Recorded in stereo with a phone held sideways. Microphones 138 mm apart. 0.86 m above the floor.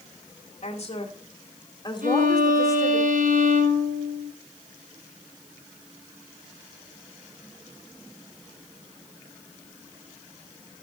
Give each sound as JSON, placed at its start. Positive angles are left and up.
{"t": 0.6, "sound": "a woman speaking", "side_deg": 50, "distance_m": 2.5}
{"t": 2.0, "sound": "a violin", "side_deg": -90, "distance_m": 5.5}